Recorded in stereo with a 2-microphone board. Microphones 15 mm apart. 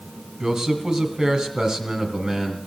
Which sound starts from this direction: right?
A man speaking, at 0.4 s.